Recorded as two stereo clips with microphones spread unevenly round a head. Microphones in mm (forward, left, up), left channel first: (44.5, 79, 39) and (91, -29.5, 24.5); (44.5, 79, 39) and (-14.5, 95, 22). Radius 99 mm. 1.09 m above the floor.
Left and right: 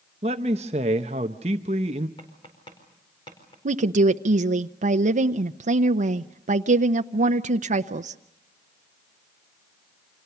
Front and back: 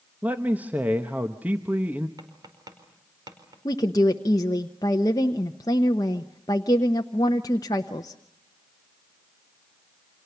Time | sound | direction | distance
0.2 | a man speaking | 120° right | 0.8 m
2.2 | tapping | straight behind | 4.5 m
3.6 | a woman speaking | 70° right | 0.8 m